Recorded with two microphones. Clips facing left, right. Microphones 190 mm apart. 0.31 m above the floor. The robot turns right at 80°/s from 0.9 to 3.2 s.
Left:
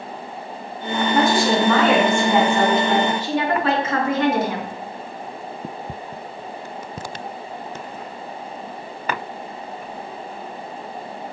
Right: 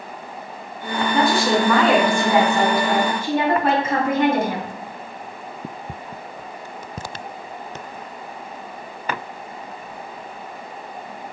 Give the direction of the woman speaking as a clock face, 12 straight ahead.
8 o'clock.